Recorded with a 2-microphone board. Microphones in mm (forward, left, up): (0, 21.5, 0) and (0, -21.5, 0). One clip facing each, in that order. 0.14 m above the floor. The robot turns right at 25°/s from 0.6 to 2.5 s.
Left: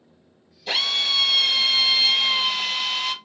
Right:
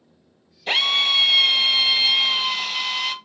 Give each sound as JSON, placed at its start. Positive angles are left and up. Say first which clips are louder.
{"t": 0.7, "sound": "a drill", "louder": "right 4 dB", "azimuth_deg": -50, "distance_m": 1.6}